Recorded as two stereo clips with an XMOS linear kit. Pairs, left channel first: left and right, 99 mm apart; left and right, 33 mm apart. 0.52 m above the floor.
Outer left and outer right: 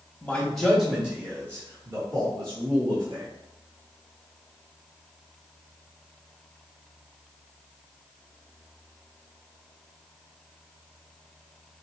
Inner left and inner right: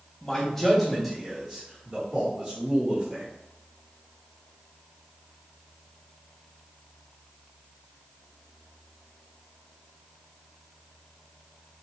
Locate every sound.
0.2 s a man speaking: 15° left (ahead or behind), 1.1 m; by 3.3 s 50° right (ahead or behind), 1.8 m